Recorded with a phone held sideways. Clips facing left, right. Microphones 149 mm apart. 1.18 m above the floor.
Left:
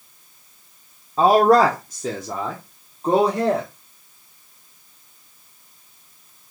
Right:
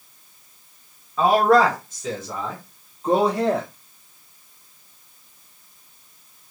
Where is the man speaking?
30° left (ahead or behind), 0.6 m; by 3.7 s 35° left (ahead or behind), 1.8 m.